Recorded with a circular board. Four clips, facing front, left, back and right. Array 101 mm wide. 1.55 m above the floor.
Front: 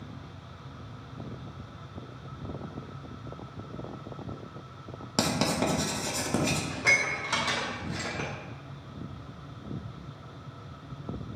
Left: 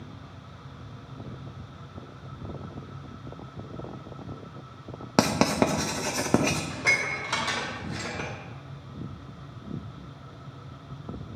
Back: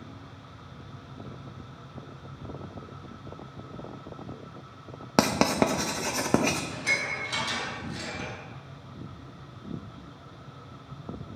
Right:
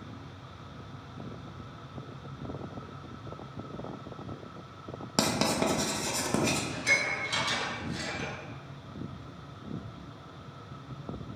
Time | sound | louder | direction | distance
5.2 | writing | left 5 dB, back 5 dB | 140° left | 1.0 m
6.7 | dishes clattering | left 2 dB, front 3 dB | 50° left | 2.5 m